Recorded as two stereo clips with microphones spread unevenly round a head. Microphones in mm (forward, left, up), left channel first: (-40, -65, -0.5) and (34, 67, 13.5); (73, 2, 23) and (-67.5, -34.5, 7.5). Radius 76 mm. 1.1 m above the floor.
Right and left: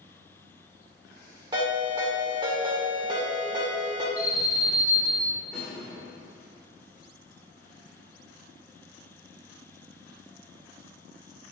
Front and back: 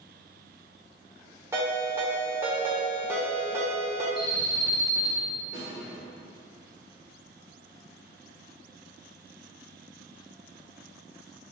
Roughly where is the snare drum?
Ahead right.